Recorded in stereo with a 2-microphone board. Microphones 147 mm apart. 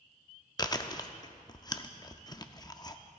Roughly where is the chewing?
Left.